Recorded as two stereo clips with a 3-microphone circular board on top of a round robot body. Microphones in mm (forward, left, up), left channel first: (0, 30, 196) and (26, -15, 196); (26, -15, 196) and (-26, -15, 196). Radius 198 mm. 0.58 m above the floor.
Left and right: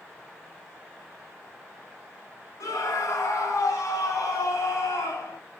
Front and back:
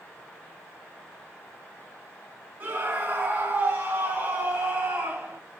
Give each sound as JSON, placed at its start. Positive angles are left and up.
{"t": 2.6, "sound": "a scream", "azimuth_deg": 125, "distance_m": 6.0}